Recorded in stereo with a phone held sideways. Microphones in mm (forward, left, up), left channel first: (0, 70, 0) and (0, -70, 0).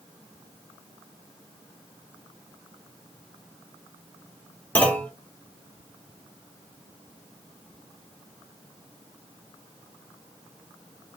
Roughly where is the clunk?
Centre.